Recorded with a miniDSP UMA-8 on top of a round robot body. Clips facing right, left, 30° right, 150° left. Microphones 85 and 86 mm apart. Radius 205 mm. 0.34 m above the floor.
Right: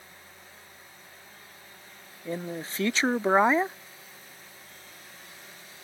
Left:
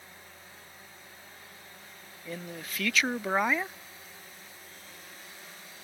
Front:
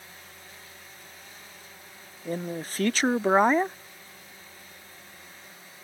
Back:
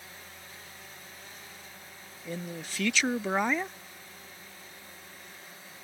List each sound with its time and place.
2.2 s a man speaking: 45° right